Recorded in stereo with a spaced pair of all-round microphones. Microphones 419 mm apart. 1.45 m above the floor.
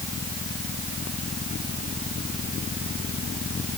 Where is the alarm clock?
No alarm clock in this recording.